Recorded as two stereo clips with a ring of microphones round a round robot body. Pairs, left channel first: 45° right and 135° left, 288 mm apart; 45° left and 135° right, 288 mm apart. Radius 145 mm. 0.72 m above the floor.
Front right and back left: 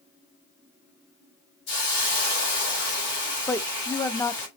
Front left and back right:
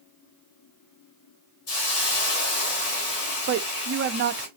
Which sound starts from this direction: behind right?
A woman speaking, at 3.5 s.